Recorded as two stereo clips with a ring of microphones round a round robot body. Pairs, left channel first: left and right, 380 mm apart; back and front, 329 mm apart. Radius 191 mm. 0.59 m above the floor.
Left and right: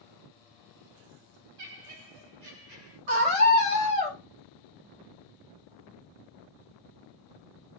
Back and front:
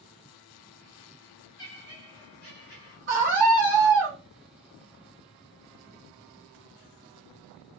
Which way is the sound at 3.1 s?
60° right.